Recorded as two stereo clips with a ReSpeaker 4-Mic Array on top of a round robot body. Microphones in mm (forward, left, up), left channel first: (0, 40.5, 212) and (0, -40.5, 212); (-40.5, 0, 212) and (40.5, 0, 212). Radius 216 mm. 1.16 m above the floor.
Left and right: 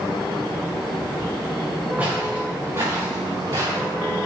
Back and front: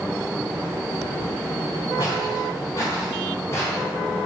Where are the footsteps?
155° right, 5 m; by 3.9 s 130° right, 6 m.